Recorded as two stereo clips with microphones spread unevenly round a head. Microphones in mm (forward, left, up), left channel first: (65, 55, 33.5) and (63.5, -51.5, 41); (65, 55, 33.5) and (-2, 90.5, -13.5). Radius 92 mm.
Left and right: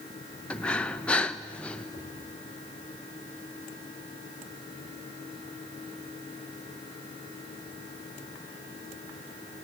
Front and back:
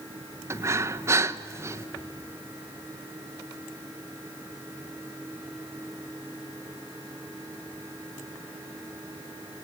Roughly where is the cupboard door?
Behind.